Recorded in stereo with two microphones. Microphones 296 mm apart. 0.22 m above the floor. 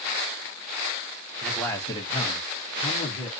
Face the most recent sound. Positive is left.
turn(degrees=20)  # may be behind; listen again after turning